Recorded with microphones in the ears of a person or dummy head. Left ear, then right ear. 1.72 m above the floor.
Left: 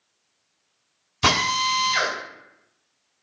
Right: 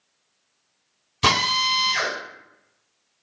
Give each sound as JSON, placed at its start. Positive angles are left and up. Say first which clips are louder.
{"t": 1.2, "sound": "a drill", "louder": "right 1 dB", "side_deg": -5, "distance_m": 3.5}